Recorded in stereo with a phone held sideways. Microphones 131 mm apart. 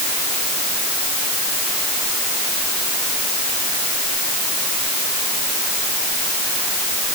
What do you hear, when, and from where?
Only background noise.